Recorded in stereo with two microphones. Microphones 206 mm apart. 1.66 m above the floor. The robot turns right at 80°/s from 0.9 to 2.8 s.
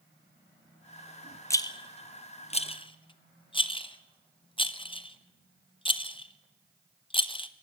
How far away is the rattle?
About 0.9 m.